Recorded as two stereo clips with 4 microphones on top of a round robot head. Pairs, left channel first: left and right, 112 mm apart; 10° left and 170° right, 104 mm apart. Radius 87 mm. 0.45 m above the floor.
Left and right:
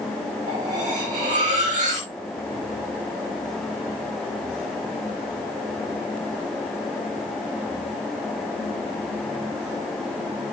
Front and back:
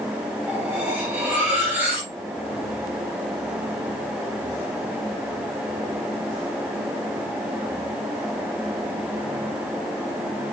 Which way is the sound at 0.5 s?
90° right.